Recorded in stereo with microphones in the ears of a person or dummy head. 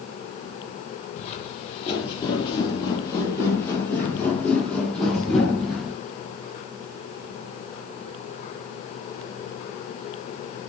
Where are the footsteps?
40° left (ahead or behind), 2.5 m; by 6.0 s centre (ahead or behind), 4 m.